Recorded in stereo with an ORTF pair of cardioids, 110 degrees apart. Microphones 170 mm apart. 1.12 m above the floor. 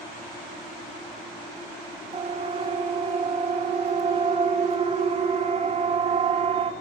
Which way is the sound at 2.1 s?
35° right.